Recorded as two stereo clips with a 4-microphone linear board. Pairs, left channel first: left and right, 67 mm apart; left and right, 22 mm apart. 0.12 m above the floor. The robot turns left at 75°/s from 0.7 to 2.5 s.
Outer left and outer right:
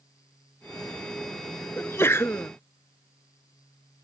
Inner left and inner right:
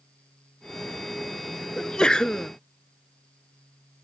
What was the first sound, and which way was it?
A sneeze, 135° left.